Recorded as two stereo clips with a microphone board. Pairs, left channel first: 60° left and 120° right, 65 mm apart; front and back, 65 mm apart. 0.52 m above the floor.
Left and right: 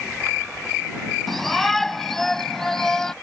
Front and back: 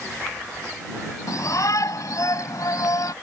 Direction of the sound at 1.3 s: 30° right.